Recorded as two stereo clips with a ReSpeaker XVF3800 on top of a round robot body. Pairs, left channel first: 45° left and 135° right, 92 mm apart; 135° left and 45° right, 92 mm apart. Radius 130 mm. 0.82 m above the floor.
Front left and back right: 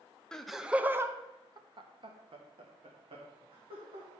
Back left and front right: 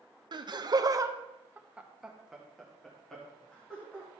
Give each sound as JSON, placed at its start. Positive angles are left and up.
{"t": 0.3, "sound": "laughter", "azimuth_deg": -35, "distance_m": 1.0}